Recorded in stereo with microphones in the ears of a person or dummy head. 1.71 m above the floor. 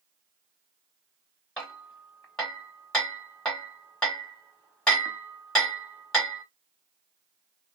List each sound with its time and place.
1.6 s hammering: 5° left (ahead or behind), 1.3 m